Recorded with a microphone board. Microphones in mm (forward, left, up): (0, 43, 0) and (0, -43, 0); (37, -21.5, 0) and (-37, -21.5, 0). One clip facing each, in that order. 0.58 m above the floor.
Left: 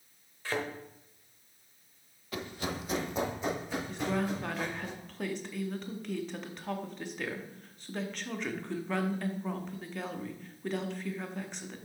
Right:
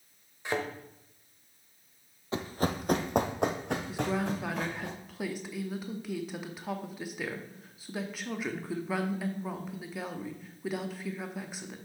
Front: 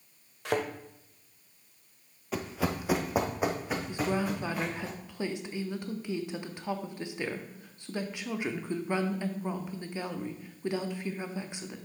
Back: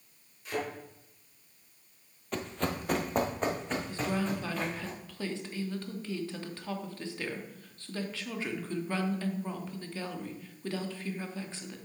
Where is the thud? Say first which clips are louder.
Right 2 dB, front 5 dB; 20° right, 0.9 m.